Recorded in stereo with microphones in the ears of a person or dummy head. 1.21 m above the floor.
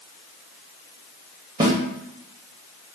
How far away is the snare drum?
About 0.9 m.